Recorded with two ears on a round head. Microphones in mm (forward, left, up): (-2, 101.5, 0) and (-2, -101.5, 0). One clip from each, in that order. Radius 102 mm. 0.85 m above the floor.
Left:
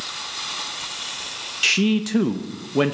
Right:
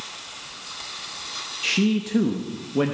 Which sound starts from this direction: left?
A man speaking, at 1.6 s.